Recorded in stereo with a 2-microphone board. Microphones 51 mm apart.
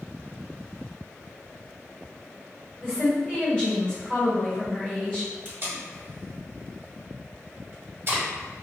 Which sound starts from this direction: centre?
A woman speaking, at 2.8 s.